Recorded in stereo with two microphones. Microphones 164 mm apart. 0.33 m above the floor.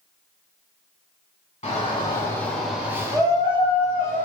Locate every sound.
1.6 s a shout: 35° left (ahead or behind), 1.2 m; by 4.3 s 45° right (ahead or behind), 1.5 m